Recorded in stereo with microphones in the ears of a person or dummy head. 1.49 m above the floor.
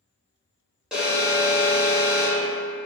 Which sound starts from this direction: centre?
An alarm, at 0.9 s.